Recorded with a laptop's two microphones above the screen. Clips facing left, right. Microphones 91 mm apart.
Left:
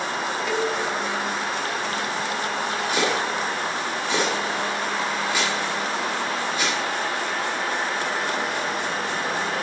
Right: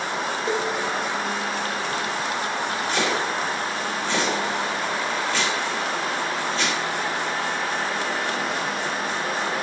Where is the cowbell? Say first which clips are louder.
Even; 30° right (ahead or behind), 0.9 m.